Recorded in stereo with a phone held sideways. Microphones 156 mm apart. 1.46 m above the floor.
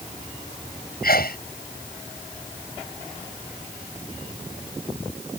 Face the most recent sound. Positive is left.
turn(degrees=75)  # may be behind; listen again after turning